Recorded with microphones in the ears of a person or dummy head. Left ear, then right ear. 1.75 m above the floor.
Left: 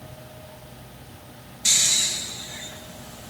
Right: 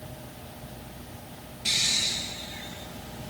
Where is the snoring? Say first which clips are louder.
Left 4 dB; 45° left (ahead or behind), 3 m.